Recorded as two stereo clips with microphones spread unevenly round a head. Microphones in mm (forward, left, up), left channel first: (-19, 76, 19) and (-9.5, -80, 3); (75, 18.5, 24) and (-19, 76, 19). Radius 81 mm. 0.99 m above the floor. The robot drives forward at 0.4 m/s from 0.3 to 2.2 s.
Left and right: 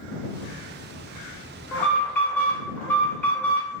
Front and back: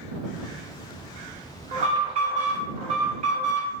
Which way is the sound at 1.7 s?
175° left.